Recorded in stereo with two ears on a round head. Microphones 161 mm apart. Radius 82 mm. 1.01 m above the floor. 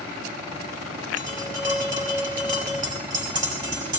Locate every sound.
1.2 s tapping: 20° right (ahead or behind), 4.5 m